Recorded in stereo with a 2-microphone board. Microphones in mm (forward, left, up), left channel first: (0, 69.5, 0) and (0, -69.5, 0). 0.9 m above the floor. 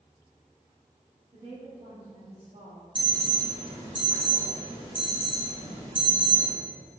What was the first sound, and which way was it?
A woman speaking, 40° right (ahead or behind).